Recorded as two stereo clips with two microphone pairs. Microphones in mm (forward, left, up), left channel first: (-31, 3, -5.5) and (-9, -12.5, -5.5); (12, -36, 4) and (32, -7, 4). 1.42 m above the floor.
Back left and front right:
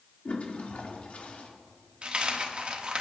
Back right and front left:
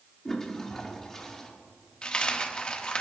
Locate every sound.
0.2 s a toilet flushing: 160° left, 1.6 m
2.0 s a dropped coin: 70° right, 1.3 m